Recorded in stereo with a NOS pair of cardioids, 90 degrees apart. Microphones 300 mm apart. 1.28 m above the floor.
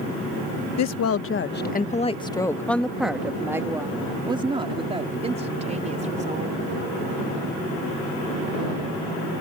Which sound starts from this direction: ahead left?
A woman speaking, at 0.8 s.